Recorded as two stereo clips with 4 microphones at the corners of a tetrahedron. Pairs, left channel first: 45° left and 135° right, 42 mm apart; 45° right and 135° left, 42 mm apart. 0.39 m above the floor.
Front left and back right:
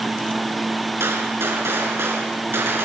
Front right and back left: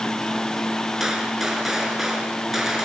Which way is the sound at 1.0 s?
145° right.